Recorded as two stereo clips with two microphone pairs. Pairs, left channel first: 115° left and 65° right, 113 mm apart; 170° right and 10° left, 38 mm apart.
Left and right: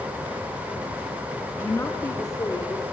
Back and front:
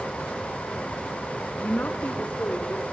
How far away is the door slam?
No door slam in this recording.